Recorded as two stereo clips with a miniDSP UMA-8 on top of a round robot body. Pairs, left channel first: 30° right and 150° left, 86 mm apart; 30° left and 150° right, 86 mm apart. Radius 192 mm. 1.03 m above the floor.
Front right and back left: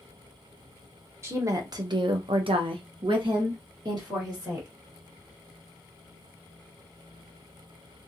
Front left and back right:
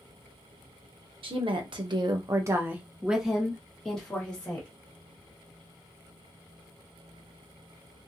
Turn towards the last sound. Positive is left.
turn(degrees=105)